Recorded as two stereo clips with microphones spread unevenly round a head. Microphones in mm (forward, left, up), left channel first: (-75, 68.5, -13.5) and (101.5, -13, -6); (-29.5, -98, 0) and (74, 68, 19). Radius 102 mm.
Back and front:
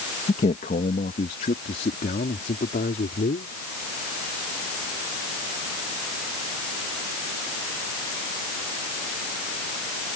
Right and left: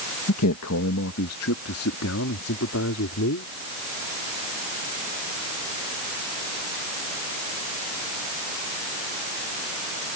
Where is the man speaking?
145° right; by 3.5 s 150° right.